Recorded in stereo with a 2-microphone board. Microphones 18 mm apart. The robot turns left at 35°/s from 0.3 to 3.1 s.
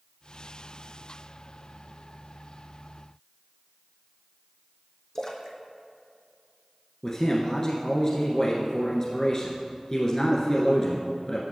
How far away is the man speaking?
About 1.3 m.